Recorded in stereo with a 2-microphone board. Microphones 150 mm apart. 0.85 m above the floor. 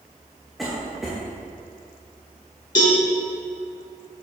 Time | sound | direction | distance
0.6 | a cough | centre (ahead or behind) | 1.0 m
2.8 | a cowbell | 70° left (ahead or behind) | 1.5 m